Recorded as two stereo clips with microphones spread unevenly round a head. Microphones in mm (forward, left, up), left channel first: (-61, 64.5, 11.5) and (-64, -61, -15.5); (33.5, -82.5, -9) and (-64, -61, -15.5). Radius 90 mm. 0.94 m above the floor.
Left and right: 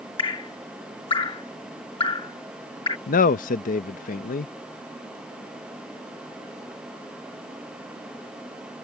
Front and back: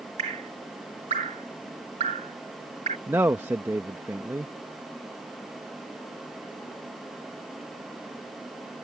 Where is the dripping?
140° left.